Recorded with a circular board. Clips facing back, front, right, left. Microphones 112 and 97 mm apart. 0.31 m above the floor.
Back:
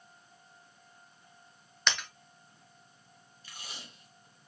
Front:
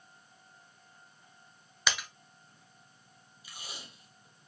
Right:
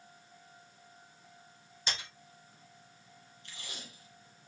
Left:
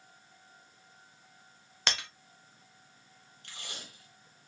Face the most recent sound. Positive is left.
turn(degrees=80)